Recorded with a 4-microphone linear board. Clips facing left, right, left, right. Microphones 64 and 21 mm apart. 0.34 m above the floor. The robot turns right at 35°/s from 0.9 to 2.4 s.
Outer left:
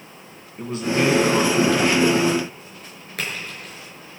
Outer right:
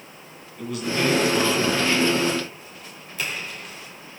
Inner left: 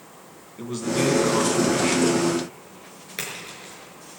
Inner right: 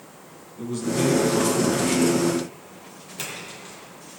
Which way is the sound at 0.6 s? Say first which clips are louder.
Outer left 3 dB, even; 35° left.